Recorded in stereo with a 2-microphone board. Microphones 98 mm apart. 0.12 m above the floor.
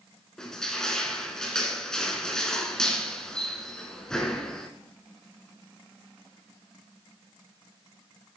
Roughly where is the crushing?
Centre.